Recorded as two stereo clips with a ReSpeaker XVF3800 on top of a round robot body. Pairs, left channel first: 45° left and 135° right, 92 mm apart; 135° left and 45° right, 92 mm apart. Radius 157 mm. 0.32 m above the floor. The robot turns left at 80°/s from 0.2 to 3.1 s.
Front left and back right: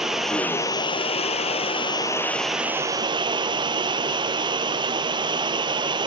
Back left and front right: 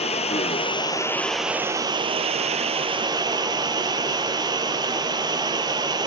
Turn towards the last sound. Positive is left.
turn(degrees=-95)